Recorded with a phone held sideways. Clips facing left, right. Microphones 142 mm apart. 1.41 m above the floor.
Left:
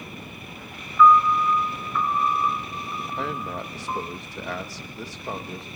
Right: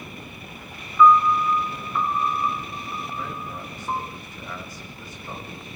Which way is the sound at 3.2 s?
80° left.